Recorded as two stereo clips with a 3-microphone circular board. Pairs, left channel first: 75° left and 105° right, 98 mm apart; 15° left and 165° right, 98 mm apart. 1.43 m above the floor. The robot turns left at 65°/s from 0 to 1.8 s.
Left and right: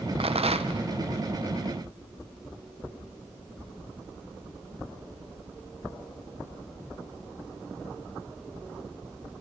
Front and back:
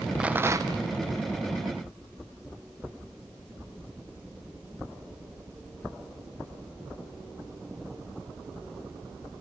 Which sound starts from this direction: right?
A rattle, at 0.2 s.